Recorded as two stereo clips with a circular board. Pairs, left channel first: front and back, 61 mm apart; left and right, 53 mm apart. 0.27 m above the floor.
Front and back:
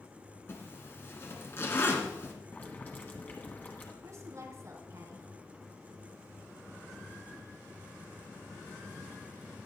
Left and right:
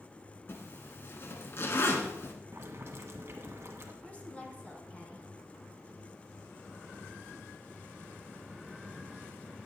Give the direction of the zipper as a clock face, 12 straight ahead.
10 o'clock.